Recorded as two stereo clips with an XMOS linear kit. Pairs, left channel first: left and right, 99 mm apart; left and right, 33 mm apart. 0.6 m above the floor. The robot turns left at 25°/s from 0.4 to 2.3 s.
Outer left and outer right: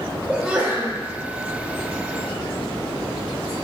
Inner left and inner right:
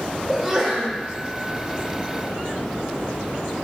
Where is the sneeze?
15° right (ahead or behind), 0.8 m; by 1.0 s 20° right (ahead or behind), 0.8 m.